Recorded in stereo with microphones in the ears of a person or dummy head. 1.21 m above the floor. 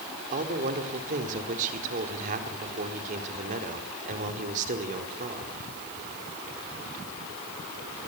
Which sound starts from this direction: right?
A man speaking, at 0.3 s.